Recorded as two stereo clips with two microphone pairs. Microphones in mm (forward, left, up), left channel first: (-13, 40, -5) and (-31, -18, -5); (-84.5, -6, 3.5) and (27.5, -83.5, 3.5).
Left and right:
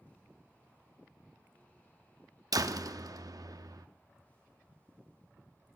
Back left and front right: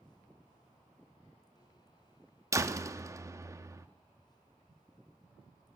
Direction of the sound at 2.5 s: 105° right.